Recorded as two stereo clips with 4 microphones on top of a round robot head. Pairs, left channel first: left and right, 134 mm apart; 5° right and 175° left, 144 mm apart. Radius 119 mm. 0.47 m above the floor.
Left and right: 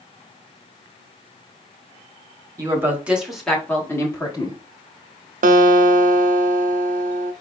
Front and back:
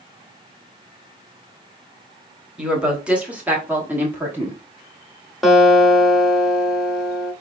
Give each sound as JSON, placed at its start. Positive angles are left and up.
{"t": 2.6, "sound": "a woman speaking", "azimuth_deg": -105, "distance_m": 1.4}
{"t": 5.4, "sound": "a guitar", "azimuth_deg": -95, "distance_m": 0.6}